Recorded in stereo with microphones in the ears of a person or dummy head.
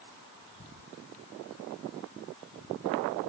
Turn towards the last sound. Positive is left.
No sound to turn to.